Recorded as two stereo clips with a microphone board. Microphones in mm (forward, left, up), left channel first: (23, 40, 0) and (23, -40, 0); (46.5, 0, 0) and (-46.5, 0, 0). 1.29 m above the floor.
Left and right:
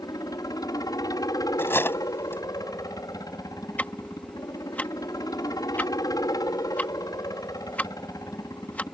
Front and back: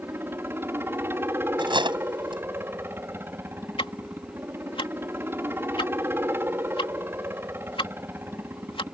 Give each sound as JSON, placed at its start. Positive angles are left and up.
{"t": 0.0, "sound": "a helicopter", "azimuth_deg": 120}
{"t": 1.6, "sound": "cutlery clinking", "azimuth_deg": 150}
{"t": 3.8, "sound": "ticking", "azimuth_deg": 20}